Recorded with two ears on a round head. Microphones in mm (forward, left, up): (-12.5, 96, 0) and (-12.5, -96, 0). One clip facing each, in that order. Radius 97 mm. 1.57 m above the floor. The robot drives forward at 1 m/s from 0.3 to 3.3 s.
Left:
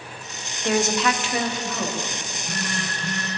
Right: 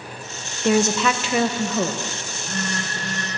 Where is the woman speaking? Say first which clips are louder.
Right 3 dB; 70° right (ahead or behind), 0.9 m; by 2.0 s 35° right (ahead or behind), 1.4 m.